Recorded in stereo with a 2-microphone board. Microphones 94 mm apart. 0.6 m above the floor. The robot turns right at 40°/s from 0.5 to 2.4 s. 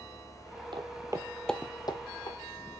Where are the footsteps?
60° right (ahead or behind), 1.1 m; by 2.4 s 70° left (ahead or behind), 1.6 m.